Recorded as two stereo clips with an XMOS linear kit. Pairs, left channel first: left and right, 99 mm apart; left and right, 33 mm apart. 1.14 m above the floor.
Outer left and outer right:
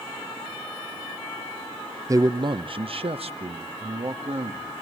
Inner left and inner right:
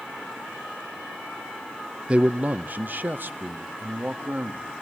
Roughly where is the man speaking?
Right.